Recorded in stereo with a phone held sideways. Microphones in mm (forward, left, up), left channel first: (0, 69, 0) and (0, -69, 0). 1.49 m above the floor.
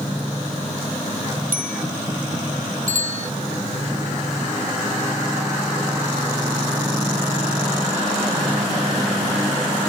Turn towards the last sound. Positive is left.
turn(degrees=-80)